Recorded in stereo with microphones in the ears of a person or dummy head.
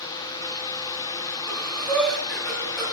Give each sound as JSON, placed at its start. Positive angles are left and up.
{"t": 1.5, "sound": "breathing", "side_deg": 0, "distance_m": 4.5}